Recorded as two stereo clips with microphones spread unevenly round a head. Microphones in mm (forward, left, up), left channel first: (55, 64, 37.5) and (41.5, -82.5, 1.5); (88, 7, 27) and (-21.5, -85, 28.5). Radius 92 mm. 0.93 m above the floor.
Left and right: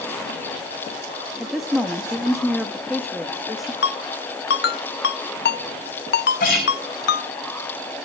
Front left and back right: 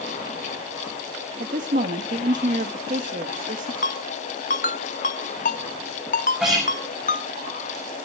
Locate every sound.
1.4 s a woman speaking: straight behind, 1.0 m
3.8 s a ringtone: 90° left, 0.8 m
6.4 s a guitar: 135° left, 6.5 m